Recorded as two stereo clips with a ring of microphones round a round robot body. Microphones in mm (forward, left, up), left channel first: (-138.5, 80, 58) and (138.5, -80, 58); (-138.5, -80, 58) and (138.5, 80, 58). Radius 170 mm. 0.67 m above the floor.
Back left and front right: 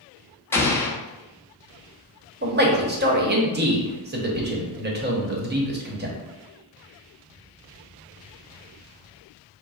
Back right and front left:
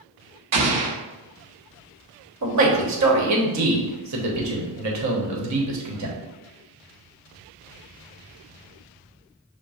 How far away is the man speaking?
About 1.2 m.